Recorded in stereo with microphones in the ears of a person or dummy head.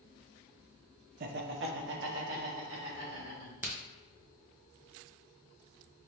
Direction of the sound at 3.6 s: 15° right (ahead or behind).